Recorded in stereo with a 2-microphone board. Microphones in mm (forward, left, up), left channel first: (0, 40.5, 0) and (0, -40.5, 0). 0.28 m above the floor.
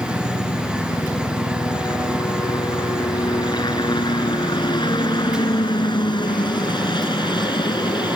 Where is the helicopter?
60° left (ahead or behind); by 8.2 s 65° left (ahead or behind).